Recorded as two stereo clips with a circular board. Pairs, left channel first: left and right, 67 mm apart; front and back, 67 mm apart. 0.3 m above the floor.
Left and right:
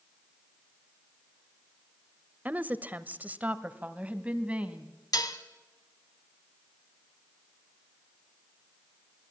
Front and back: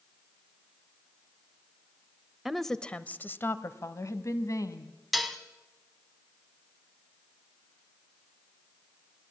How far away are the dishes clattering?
About 1.3 m.